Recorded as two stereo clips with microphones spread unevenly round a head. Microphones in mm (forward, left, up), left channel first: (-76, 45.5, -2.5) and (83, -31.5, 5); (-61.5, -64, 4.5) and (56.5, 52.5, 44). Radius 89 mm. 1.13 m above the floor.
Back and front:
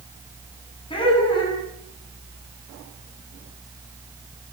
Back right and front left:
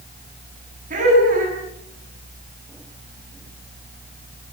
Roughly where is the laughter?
Left.